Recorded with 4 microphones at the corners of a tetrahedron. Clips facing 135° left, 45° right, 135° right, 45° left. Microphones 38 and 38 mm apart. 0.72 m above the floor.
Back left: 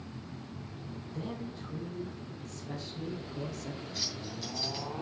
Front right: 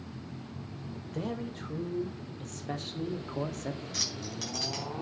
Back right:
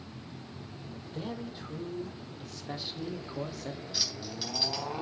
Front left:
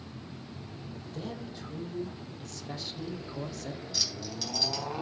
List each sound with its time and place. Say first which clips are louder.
1.1 s a man speaking: front right 4 dB, back right 2 dB; 65° right, 3.5 m; by 3.8 s 60° right, 1.5 m
3.9 s keys jangling: front right 1 dB, front left 1 dB; 60° right, 4 m